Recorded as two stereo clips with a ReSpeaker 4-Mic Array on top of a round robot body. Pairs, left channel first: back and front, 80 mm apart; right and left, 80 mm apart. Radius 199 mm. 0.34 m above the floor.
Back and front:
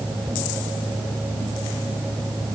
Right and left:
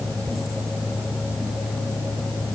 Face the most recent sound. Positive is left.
No sound to turn to.